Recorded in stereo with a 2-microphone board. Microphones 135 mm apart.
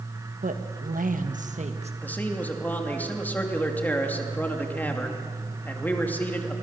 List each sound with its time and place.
0.4 s a woman speaking: 75° right (ahead or behind), 1.6 m; by 1.9 s 50° right (ahead or behind), 2 m
2.0 s a man speaking: 15° left (ahead or behind), 2.5 m